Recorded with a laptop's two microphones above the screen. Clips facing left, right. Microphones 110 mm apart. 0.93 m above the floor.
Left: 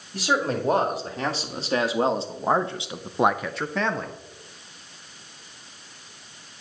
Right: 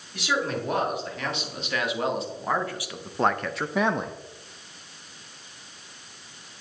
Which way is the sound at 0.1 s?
35° left (ahead or behind).